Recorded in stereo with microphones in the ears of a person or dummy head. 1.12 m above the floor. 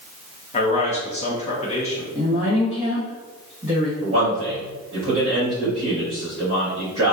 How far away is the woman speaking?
About 1.2 m.